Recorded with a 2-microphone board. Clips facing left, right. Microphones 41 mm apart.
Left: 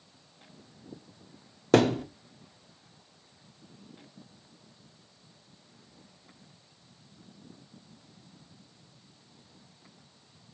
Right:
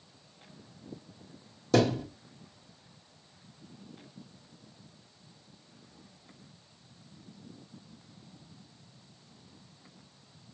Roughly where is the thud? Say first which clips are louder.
Left 3 dB; left.